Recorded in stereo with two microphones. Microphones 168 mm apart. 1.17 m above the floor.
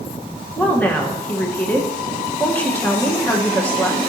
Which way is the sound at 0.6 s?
10° left (ahead or behind).